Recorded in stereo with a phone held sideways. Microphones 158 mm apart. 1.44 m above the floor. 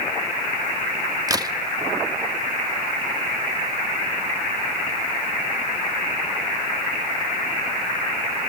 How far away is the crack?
About 1.2 m.